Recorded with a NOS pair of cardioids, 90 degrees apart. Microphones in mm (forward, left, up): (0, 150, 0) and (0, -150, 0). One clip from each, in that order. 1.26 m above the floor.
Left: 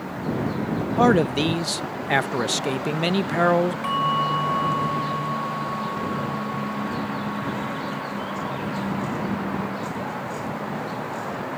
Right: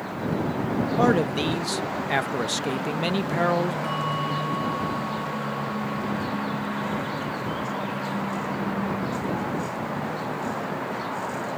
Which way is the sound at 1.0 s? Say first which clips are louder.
Left 4 dB; 20° left.